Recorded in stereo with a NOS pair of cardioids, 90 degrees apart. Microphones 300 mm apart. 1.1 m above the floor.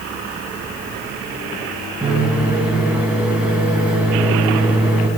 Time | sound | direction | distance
2.0 | a microwave | 5° right | 6 m